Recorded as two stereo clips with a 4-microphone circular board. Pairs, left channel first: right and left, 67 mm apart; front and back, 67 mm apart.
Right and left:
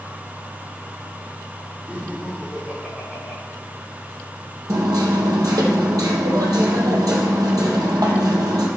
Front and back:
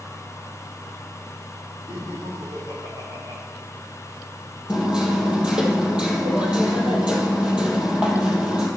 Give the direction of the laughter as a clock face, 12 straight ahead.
7 o'clock.